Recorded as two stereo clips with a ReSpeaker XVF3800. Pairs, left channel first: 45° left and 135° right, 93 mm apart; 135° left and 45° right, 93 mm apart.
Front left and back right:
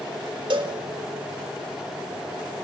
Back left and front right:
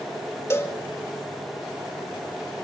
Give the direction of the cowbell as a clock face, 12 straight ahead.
5 o'clock.